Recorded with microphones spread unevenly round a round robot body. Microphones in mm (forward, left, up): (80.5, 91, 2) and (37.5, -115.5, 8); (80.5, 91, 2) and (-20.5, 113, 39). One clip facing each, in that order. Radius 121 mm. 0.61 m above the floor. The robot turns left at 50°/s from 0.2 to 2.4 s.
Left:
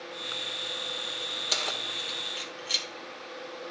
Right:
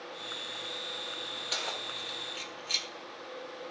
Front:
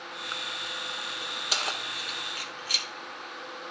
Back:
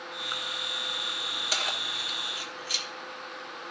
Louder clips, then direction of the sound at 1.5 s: Left 3 dB, front 1 dB; 45° left.